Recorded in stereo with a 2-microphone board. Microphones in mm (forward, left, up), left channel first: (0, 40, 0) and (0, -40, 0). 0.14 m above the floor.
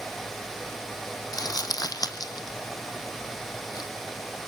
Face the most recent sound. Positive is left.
turn(degrees=55)  # may be behind; listen again after turning